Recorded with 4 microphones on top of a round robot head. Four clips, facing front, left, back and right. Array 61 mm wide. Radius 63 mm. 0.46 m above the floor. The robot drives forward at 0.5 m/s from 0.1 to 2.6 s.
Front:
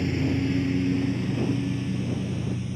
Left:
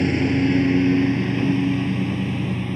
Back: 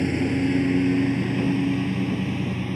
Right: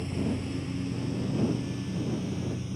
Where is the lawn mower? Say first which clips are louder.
Left 13 dB, back 3 dB; 110° left; by 2.8 s 130° left.